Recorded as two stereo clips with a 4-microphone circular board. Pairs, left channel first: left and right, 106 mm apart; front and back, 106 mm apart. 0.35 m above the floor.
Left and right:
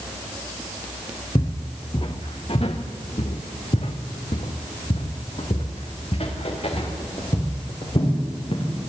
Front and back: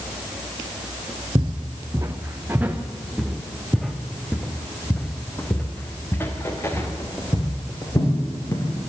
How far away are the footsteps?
About 1.6 m.